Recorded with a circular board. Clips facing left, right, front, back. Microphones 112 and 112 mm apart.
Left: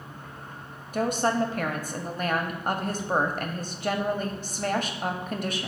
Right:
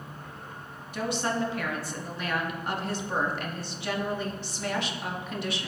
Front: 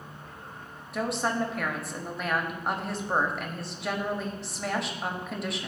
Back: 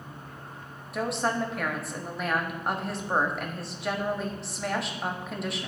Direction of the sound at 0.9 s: 90° left.